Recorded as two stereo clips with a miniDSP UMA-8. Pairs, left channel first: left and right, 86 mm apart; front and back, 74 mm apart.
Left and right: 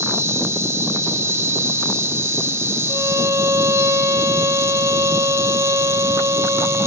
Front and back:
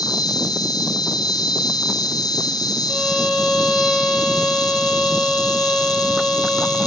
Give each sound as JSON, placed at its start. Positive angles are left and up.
{"t": 0.0, "sound": "an insect", "azimuth_deg": -30, "distance_m": 1.0}
{"t": 2.9, "sound": "a violin", "azimuth_deg": -95, "distance_m": 0.9}